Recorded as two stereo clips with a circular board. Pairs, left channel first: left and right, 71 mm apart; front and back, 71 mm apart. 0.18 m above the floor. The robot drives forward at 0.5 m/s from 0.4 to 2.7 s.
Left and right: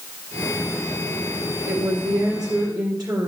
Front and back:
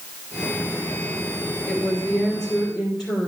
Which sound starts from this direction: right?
A woman speaking, at 1.7 s.